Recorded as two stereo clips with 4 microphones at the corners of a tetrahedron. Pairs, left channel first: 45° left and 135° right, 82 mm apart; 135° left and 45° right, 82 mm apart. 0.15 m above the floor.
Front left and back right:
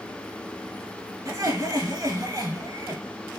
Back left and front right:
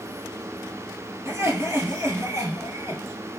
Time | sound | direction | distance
1.2 | laughter | 100° right | 2.5 m